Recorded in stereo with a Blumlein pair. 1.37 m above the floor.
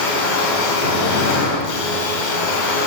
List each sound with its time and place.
0.0 s a machine running: 50° left, 1.1 m